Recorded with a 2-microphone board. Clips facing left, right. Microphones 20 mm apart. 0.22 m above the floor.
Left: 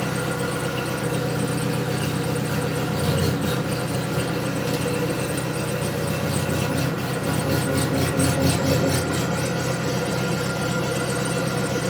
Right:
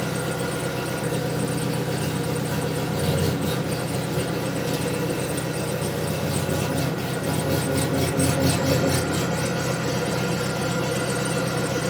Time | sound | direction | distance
0.0 | an engine running | 45° left (ahead or behind) | 1.3 m